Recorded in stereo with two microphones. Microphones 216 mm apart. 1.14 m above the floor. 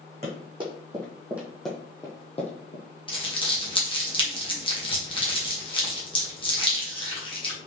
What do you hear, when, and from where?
0.2 s running footsteps: 30° right (ahead or behind), 2.5 m; by 2.9 s 40° left (ahead or behind), 1.7 m
3.1 s crumpling: 25° left (ahead or behind), 1.4 m